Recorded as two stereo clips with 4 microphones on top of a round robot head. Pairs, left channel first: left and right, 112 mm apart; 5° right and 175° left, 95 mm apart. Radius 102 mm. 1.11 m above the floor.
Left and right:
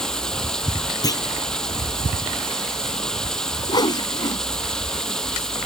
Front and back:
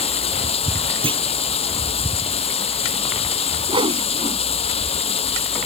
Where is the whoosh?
140° left.